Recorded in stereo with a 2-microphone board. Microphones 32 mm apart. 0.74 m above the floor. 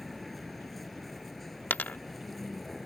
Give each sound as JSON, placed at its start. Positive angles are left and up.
{"t": 0.0, "sound": "a vehicle", "side_deg": 5}
{"t": 1.7, "sound": "a dropped coin", "side_deg": 65}